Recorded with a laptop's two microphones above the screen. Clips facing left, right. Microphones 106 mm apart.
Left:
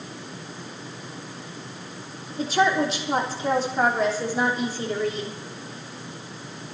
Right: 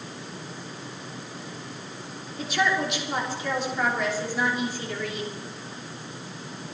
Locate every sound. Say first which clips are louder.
2.4 s a woman speaking: left 4 dB; 35° left (ahead or behind), 3 m